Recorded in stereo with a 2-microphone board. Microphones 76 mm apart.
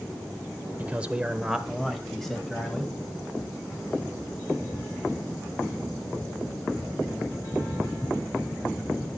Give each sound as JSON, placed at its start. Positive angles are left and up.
{"t": 0.8, "sound": "a man speaking", "side_deg": -20, "distance_m": 0.9}